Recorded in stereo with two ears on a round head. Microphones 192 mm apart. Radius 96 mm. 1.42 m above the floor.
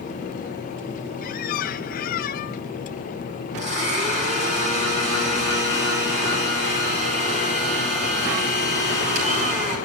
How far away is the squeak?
About 0.6 m.